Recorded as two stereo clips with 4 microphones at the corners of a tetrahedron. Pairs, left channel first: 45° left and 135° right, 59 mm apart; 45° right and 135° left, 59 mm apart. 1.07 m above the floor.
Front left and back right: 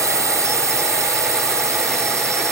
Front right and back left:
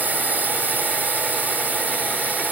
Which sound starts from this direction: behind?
A drone, at 0.0 s.